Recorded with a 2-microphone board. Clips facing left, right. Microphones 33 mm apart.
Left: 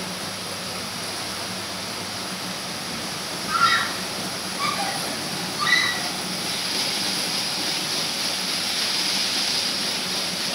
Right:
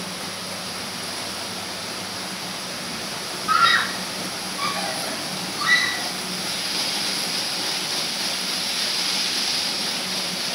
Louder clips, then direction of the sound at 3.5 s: Right 2 dB; 35° right (ahead or behind).